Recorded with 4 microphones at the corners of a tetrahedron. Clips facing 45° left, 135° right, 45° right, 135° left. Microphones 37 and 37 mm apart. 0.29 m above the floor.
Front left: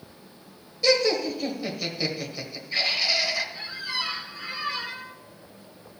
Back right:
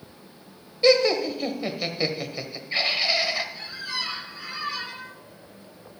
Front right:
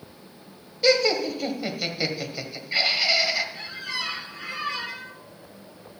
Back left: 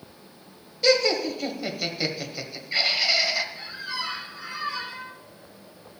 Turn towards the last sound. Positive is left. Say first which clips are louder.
# front left 1 dB, front right 1 dB
turn(degrees=-35)